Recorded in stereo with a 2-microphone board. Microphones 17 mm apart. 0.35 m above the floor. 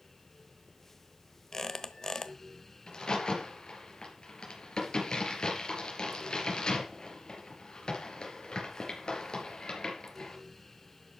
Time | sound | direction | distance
1.5 | a squeak | 30° left (ahead or behind) | 0.9 m
2.9 | a crack | 50° left (ahead or behind) | 4 m